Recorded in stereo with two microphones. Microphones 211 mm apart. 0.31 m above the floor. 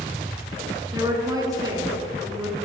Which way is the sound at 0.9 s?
20° right (ahead or behind).